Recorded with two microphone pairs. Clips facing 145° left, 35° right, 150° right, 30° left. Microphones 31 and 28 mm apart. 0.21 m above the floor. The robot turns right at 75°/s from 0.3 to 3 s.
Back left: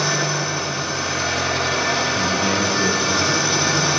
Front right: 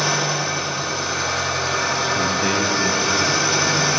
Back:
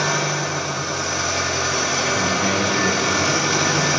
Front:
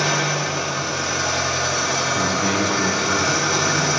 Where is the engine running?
50° left, 3.5 m; by 4.0 s 110° right, 3.5 m.